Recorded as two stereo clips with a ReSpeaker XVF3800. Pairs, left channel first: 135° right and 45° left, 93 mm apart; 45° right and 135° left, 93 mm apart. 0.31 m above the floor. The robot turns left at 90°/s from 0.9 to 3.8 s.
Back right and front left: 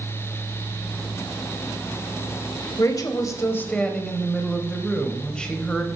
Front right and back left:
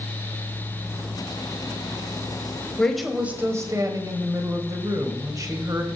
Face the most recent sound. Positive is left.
turn(degrees=150)